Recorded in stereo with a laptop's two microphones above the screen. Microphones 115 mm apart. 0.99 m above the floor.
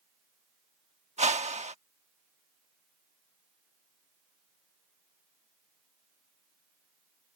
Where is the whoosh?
75° right (ahead or behind).